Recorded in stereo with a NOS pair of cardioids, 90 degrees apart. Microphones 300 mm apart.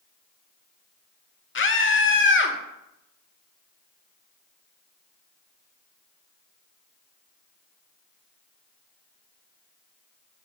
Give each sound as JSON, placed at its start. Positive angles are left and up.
{"t": 1.6, "sound": "a scream", "azimuth_deg": 40, "distance_m": 1.9}